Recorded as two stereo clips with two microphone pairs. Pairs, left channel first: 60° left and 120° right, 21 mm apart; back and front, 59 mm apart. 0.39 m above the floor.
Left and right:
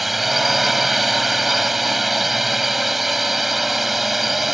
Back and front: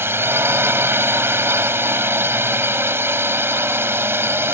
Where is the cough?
No cough in this recording.